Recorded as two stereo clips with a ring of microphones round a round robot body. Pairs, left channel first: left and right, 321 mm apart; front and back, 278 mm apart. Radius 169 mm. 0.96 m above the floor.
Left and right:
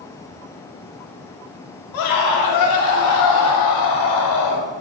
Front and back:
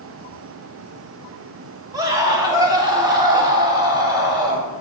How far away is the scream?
About 2.5 m.